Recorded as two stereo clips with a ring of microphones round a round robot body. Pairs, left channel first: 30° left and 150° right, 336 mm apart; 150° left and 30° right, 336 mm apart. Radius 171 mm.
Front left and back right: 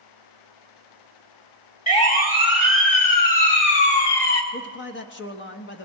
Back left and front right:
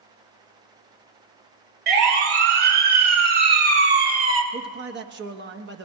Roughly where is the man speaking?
Ahead.